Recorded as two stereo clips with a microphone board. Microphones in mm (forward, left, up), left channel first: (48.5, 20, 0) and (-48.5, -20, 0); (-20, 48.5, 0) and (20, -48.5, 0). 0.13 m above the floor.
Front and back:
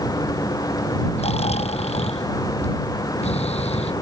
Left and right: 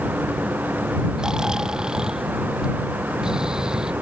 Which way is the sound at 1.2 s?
15° left.